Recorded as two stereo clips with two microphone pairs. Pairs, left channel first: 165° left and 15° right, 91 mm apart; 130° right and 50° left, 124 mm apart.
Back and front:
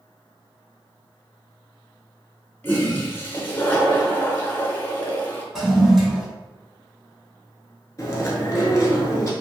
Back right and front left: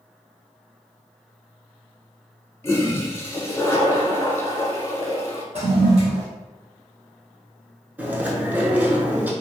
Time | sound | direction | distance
2.6 | a toilet flushing | 155° right | 0.7 m
5.5 | a toilet flushing | 75° left | 1.7 m
8.0 | chewing | 125° left | 0.6 m